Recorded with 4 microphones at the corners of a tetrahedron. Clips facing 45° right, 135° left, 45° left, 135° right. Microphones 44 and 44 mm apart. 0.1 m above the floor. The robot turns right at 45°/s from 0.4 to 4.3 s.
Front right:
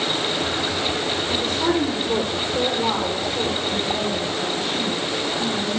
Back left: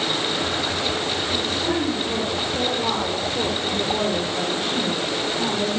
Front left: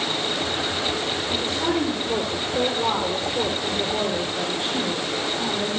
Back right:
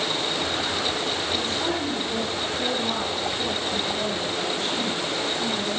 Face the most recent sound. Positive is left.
turn(degrees=115)